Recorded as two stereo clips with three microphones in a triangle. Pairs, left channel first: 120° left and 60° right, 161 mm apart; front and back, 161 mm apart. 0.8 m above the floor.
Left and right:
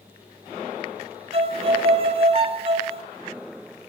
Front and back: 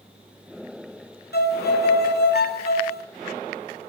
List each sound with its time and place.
1.3 s a violin: 5° right, 1.9 m